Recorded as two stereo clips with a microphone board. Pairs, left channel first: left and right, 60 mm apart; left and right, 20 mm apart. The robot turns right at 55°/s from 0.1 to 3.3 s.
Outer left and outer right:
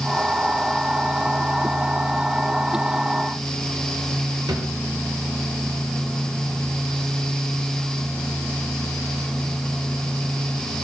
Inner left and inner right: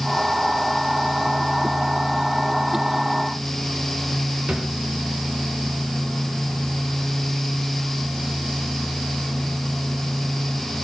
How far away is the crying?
I don't hear crying.